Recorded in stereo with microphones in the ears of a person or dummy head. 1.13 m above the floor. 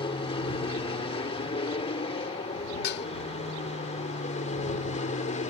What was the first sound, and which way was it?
An aircraft, 25° left (ahead or behind).